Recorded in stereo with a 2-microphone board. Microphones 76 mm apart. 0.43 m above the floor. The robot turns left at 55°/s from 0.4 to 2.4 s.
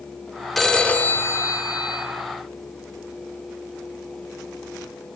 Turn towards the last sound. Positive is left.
turn(degrees=75)